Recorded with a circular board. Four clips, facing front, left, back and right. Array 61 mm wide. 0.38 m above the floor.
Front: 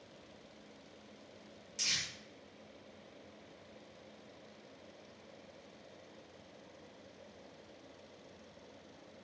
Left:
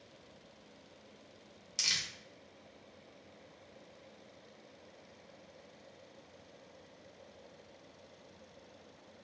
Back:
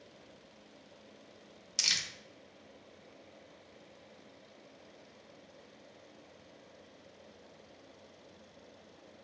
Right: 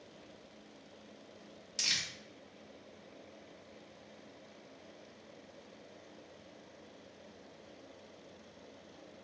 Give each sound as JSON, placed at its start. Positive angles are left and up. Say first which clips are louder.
{"t": 1.8, "sound": "crumpling", "louder": "even, back 3 dB", "azimuth_deg": 170, "distance_m": 0.7}